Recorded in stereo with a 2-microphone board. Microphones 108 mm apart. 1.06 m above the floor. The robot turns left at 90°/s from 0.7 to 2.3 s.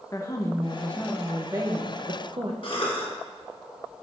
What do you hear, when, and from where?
0.1 s a woman speaking: 40° left, 1.0 m; by 2.5 s 105° right, 1.0 m
2.6 s a cough: 55° left (ahead or behind), 1.5 m